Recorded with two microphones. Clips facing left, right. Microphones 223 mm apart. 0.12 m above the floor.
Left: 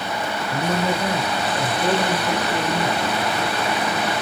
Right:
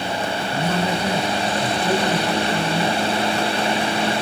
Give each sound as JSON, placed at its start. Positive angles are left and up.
{"t": 0.5, "sound": "a man speaking", "side_deg": 30, "distance_m": 1.5}